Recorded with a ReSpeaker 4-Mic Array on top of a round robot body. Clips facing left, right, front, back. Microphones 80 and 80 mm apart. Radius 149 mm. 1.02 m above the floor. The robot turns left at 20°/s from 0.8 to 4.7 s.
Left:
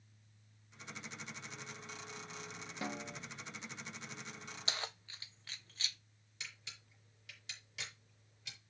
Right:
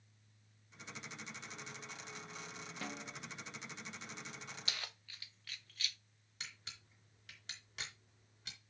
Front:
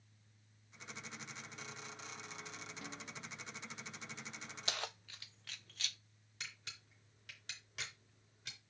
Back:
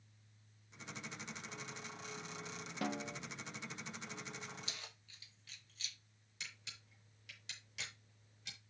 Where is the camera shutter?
45° right, 4.5 m.